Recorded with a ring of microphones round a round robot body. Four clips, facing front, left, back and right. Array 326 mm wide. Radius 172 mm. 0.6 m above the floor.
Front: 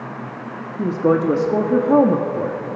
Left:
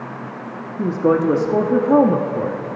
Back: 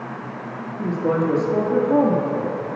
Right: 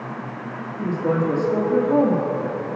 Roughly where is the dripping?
No dripping in this recording.